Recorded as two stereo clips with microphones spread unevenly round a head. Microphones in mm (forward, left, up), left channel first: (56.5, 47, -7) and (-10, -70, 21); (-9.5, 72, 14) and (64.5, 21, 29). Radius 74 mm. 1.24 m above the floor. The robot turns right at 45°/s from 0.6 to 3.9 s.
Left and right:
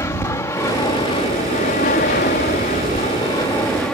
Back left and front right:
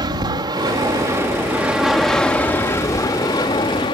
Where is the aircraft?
5° right; by 4.0 s 145° left.